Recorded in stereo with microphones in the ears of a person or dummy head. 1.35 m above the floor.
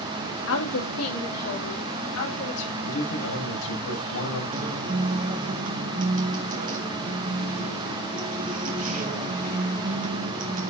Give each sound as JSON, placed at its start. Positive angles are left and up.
{"t": 0.5, "sound": "a woman speaking", "side_deg": 75, "distance_m": 1.9}
{"t": 2.8, "sound": "a man speaking", "side_deg": 70, "distance_m": 7.0}
{"t": 4.5, "sound": "a guitar", "side_deg": -45, "distance_m": 1.8}